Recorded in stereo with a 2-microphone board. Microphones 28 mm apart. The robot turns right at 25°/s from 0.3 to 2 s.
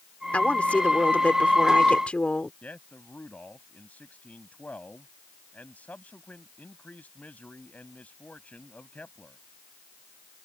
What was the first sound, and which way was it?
A woman speaking, 70° left.